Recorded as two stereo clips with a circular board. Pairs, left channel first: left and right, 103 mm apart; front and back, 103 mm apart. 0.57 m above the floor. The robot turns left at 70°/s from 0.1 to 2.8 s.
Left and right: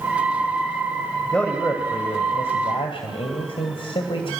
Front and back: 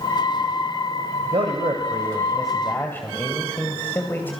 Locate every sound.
1.2 s a man speaking: 175° left, 2.5 m; by 4.3 s 70° left, 2.5 m